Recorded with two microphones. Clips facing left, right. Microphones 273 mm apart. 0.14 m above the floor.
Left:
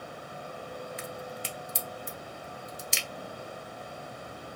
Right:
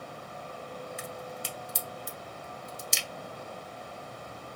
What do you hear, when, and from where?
1.0 s a crack: 50° right (ahead or behind), 0.7 m